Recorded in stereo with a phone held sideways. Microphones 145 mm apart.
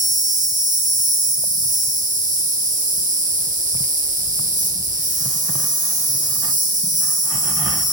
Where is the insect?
65° right (ahead or behind), 1.1 m.